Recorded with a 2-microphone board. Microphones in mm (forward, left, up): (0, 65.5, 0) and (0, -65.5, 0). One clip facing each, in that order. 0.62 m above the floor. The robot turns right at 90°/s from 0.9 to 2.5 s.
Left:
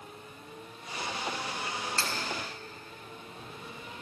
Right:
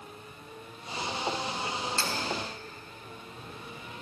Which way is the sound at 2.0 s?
60° left (ahead or behind).